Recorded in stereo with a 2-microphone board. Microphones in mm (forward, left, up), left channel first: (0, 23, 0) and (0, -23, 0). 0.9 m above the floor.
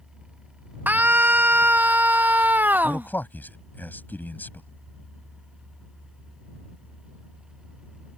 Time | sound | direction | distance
0.9 | a scream | 45° right (ahead or behind) | ?
2.8 | a man speaking | 45° left (ahead or behind) | ?